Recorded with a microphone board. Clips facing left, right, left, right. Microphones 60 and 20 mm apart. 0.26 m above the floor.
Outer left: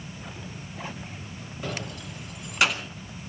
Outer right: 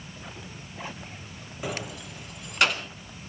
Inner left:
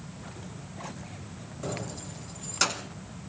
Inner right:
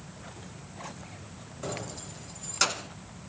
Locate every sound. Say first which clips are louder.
1.6 s keys jangling: outer right 1 dB, inner left 1 dB; 10° right (ahead or behind), 0.6 m; by 2.9 s centre (ahead or behind), 1.9 m